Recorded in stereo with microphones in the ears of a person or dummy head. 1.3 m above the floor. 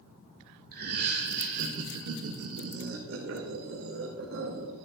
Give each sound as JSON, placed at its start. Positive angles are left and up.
{"t": 0.7, "sound": "laughter", "side_deg": -50, "distance_m": 1.9}